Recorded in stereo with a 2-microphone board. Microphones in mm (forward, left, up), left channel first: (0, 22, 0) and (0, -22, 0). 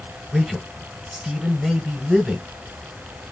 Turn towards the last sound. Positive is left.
turn(degrees=-10)  # may be behind; listen again after turning